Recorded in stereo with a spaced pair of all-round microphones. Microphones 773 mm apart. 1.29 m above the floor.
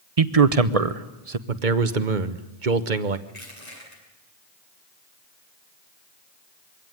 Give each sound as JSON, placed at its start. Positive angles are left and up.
{"t": 0.2, "sound": "a man speaking", "side_deg": -50, "distance_m": 1.1}
{"t": 1.5, "sound": "a man speaking", "side_deg": -75, "distance_m": 1.4}
{"t": 3.3, "sound": "crushing", "side_deg": 40, "distance_m": 7.5}